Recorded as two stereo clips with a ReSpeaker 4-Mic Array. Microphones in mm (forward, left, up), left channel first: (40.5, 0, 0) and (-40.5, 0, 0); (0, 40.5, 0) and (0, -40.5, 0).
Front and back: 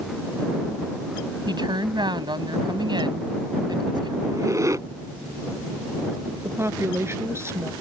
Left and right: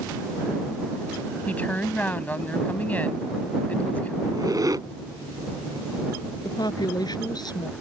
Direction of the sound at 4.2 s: 130° right.